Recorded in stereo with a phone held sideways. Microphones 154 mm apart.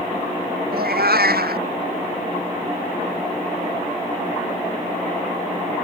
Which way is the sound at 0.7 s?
85° right.